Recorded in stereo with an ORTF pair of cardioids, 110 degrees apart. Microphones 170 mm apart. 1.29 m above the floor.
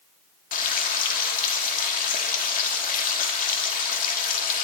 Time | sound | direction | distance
0.5 | frying | 55° left | 2.5 m